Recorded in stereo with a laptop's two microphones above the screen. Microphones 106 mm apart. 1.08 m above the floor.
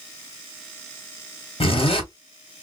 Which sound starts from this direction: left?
A zipper, at 1.6 s.